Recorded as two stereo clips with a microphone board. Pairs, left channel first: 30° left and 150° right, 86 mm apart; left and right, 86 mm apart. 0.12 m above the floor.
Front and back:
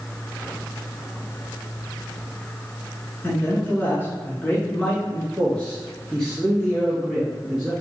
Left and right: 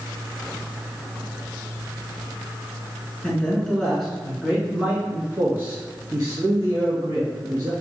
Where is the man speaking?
40° left, 1.5 m; by 7.7 s 60° right, 2.5 m.